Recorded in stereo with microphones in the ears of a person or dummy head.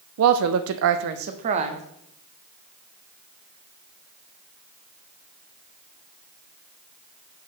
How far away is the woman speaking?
About 0.5 m.